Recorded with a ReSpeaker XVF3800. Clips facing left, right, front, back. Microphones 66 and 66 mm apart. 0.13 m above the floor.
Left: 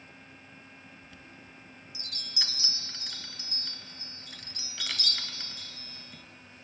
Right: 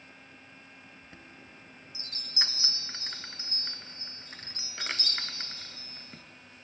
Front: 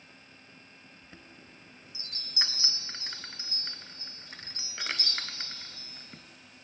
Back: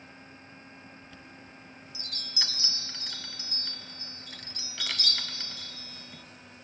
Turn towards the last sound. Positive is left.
turn(degrees=-50)